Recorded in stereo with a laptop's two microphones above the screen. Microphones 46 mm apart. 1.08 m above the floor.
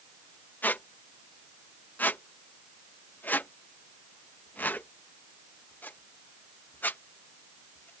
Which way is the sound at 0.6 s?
40° left (ahead or behind).